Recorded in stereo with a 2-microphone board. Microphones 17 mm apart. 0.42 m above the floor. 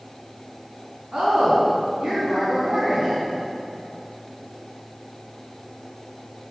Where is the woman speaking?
70° right (ahead or behind), 4.5 m.